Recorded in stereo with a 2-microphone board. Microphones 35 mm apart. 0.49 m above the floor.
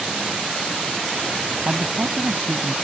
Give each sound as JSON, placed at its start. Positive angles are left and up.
{"t": 1.6, "sound": "a man speaking", "side_deg": -65}